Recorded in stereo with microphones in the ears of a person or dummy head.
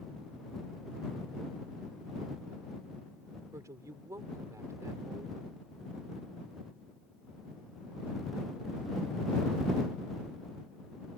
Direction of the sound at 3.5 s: 15° right (ahead or behind).